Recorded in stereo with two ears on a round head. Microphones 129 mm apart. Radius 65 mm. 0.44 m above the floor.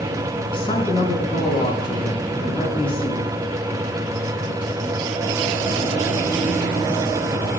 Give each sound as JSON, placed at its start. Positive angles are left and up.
{"t": 0.5, "sound": "a man speaking", "side_deg": 40, "distance_m": 5.5}